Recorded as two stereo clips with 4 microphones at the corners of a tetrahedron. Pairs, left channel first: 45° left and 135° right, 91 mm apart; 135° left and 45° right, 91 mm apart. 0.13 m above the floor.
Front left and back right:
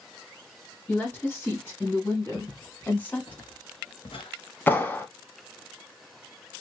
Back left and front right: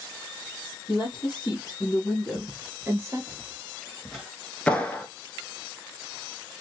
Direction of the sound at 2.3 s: 90° left.